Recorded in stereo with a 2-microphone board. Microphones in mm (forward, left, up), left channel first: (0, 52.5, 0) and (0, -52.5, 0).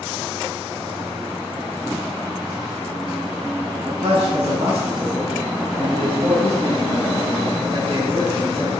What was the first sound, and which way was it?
A man speaking, 80° right.